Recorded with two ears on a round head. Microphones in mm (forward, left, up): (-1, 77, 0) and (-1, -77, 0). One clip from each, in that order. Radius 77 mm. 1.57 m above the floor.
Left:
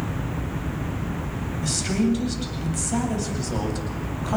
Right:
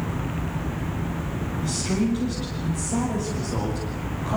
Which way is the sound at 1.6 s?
50° left (ahead or behind).